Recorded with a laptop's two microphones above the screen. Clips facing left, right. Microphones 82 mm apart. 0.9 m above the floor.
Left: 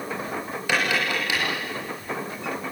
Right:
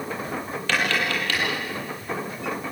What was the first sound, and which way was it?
Tapping, 15° left (ahead or behind).